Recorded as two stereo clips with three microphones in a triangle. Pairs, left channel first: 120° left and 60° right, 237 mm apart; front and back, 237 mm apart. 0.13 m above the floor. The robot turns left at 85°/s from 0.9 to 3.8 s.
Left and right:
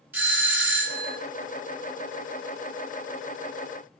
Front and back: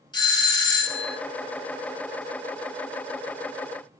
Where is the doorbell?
5° left, 1.7 m; by 1.2 s 20° right, 1.7 m.